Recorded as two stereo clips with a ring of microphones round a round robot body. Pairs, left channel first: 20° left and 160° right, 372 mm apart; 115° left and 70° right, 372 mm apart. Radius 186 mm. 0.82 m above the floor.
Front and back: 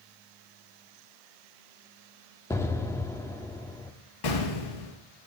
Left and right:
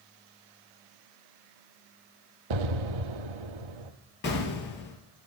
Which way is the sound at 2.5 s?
60° right.